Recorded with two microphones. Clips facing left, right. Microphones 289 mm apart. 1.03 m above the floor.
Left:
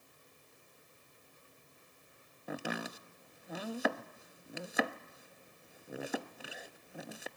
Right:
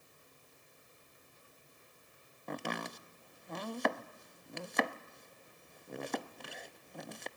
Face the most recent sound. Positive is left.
turn(degrees=5)  # may be behind; listen again after turning